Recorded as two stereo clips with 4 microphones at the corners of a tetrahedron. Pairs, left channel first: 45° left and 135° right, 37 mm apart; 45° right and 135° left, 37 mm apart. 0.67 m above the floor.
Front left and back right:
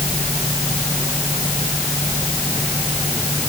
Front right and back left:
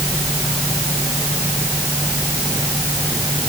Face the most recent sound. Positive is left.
No sound to turn to.